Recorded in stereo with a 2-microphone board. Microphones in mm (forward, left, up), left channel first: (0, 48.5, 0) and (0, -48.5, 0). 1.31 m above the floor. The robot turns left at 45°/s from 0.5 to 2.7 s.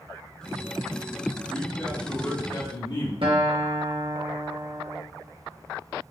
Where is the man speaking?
175° right, 2.5 m; by 3.1 s 130° left, 2.5 m.